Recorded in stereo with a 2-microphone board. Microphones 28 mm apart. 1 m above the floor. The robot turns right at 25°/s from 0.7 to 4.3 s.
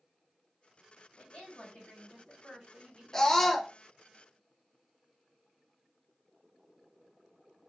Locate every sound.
1.2 s a woman speaking: 135° left, 1.6 m; by 3.6 s 165° right, 1.6 m
3.1 s a scream: 20° left (ahead or behind), 0.6 m; by 3.7 s 5° left (ahead or behind), 0.6 m